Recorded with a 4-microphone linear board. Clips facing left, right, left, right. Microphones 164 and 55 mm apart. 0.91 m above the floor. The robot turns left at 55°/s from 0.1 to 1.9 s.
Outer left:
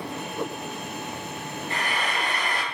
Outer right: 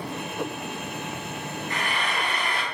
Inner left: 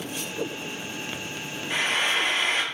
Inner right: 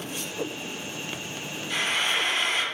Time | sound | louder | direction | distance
1.7 | frying | outer left 1 dB, inner left 2 dB | 30° left (ahead or behind) | 0.9 m